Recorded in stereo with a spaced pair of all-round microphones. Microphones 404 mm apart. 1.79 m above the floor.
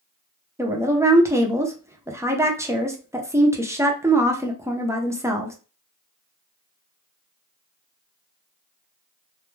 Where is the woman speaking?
5° right (ahead or behind), 0.6 m.